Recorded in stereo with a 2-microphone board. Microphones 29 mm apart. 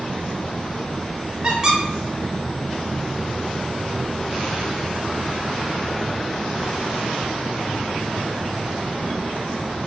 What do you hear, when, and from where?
1.4 s a squeak: 25° right (ahead or behind), 0.6 m